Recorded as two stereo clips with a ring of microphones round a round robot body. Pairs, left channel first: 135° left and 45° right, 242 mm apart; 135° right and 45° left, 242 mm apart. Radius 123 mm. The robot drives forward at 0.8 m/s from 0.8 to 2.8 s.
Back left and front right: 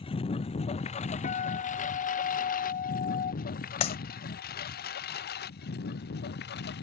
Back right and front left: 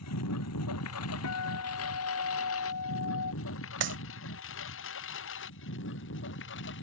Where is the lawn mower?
155° right; by 6.8 s 175° right.